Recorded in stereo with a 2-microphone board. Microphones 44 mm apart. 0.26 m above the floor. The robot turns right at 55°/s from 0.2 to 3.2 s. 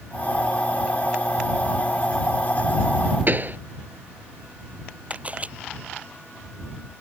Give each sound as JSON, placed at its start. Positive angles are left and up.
{"t": 3.3, "sound": "a pop", "side_deg": -40}
{"t": 5.1, "sound": "a camera shutter", "side_deg": -30}